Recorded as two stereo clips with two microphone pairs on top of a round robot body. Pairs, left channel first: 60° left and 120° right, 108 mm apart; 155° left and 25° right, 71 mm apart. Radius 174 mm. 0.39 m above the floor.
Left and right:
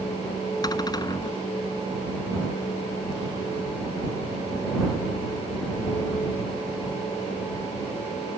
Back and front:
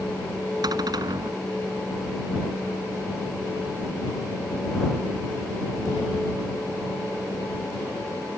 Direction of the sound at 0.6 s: 5° left.